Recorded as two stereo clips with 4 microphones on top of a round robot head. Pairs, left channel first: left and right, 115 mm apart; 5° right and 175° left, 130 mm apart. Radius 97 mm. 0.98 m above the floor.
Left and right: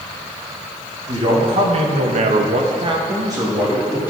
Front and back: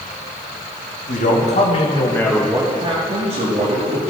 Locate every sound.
1.1 s a man speaking: 35° right, 1.9 m; by 4.1 s 165° right, 2.5 m